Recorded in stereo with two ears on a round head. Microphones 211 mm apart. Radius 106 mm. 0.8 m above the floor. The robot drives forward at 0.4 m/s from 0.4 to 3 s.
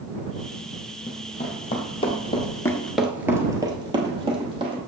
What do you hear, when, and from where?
1.1 s running footsteps: 25° left (ahead or behind), 2.5 m; by 4.8 s 25° right (ahead or behind), 2 m